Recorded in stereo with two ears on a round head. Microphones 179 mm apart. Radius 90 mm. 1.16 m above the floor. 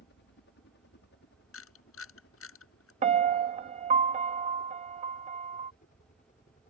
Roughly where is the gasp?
I don't hear a gasp.